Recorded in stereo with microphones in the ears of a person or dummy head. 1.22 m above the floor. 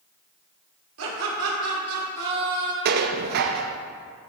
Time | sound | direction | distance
1.0 | laughter | 75° right (ahead or behind) | 3 m
2.9 | dishes clattering | 50° right (ahead or behind) | 0.7 m